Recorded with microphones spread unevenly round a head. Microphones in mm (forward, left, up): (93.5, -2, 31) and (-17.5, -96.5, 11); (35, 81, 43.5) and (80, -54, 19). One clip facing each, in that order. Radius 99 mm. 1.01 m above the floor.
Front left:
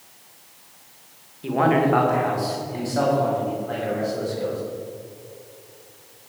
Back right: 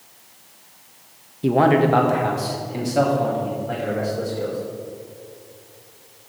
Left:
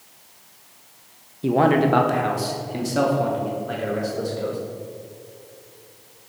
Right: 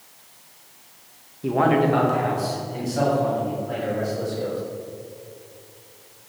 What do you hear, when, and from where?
1.4 s a man speaking: straight behind, 0.9 m; by 4.6 s 140° left, 4 m